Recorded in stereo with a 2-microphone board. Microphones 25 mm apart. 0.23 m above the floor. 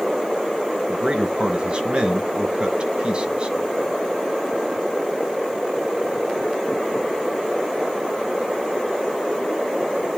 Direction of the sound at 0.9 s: 40° right (ahead or behind).